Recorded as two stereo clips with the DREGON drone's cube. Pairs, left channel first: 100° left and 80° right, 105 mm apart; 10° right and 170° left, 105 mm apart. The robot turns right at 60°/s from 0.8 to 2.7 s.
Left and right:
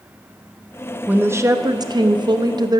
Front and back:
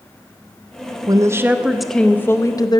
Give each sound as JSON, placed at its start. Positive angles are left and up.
{"t": 1.1, "sound": "a woman speaking", "azimuth_deg": -145, "distance_m": 0.6}